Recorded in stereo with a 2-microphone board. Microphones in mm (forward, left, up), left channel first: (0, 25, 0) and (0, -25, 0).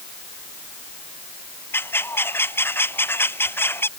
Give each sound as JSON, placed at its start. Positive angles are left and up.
{"t": 1.7, "sound": "a bird", "side_deg": 50}